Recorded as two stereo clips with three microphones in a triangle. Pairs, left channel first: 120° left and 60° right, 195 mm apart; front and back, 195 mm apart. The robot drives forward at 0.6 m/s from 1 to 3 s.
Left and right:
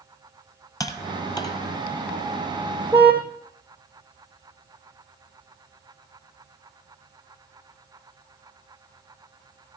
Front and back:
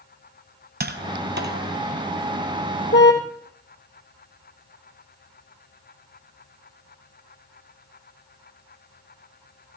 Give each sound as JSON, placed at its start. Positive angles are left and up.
{"t": 0.8, "sound": "tapping", "azimuth_deg": -170, "distance_m": 1.5}
{"t": 2.9, "sound": "a car horn", "azimuth_deg": 20, "distance_m": 3.0}